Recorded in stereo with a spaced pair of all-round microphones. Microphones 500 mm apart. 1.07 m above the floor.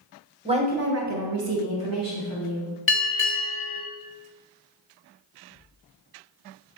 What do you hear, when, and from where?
0.5 s a woman speaking: 10° right (ahead or behind), 0.7 m; by 2.7 s 35° right (ahead or behind), 1.2 m
2.9 s a bell: 25° left (ahead or behind), 0.8 m